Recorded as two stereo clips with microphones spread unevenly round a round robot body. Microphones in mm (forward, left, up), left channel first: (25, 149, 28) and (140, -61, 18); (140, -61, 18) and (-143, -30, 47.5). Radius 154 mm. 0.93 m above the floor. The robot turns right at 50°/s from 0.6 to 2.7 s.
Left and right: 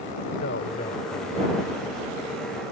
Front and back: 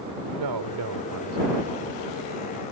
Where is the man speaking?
175° left; by 1.9 s 120° right.